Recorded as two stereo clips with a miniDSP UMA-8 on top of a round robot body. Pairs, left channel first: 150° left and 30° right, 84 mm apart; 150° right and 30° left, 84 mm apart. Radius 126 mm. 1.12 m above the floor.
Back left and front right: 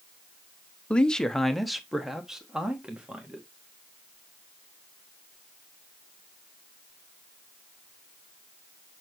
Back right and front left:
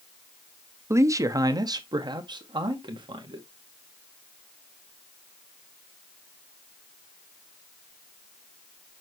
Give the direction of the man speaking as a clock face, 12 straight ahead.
9 o'clock.